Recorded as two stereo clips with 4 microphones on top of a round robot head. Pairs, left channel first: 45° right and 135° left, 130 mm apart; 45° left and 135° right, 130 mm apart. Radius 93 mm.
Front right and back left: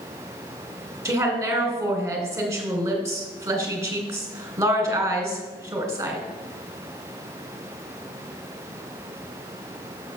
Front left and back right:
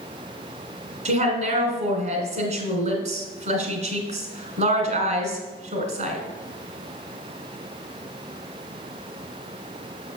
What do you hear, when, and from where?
1.1 s a woman speaking: 160° right, 2 m